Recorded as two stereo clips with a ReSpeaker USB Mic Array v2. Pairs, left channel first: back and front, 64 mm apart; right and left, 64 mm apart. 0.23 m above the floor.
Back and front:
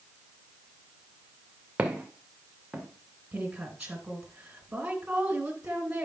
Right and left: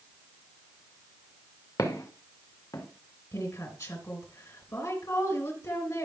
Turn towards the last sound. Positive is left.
turn(degrees=-70)